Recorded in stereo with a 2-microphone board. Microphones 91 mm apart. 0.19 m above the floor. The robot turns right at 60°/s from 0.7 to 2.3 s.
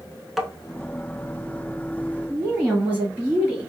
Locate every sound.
0.4 s tapping: centre (ahead or behind), 0.5 m
2.3 s a woman speaking: 20° right (ahead or behind), 1.6 m